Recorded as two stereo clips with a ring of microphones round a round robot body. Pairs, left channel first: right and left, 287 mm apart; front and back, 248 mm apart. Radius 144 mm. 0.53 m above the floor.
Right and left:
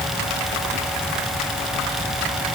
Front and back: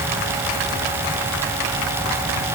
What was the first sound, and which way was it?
Only background noise.